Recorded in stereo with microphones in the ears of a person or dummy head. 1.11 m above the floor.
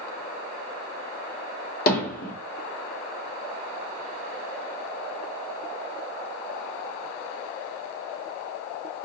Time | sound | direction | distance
1.9 | hammering | 50° left (ahead or behind) | 1.1 m